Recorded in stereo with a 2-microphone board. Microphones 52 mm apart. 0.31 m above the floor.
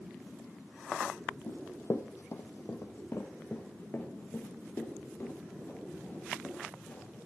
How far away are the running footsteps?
About 0.7 m.